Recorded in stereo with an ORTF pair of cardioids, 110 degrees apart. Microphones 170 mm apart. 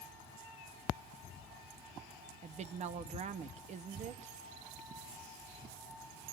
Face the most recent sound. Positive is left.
turn(degrees=-45)